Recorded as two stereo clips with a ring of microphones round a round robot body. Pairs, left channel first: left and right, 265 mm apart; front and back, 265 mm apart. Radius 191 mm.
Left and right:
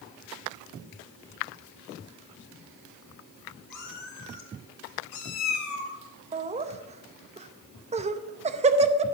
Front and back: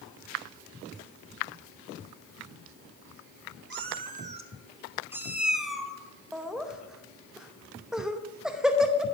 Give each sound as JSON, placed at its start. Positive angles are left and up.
{"t": 3.7, "sound": "a cat meowing", "azimuth_deg": 145, "distance_m": 1.0}
{"t": 6.3, "sound": "laughter", "azimuth_deg": -95, "distance_m": 0.7}